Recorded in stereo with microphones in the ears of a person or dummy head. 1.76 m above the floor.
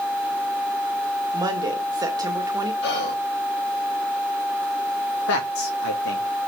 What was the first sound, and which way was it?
A woman speaking, 25° right (ahead or behind).